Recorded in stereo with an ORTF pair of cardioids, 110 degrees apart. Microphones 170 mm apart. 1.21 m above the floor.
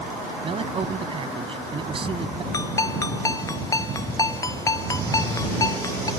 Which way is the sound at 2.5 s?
20° left.